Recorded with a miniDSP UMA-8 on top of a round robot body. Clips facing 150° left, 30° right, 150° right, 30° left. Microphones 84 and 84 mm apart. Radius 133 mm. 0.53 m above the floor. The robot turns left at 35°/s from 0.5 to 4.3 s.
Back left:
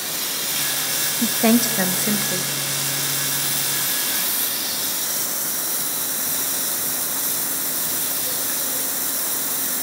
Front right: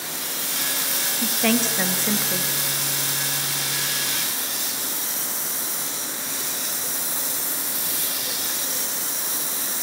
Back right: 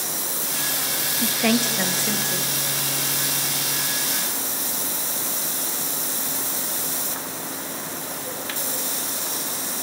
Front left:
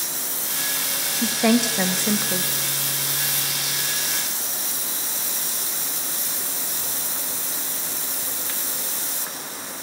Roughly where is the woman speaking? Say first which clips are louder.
Back left 5 dB, front left 3 dB; left.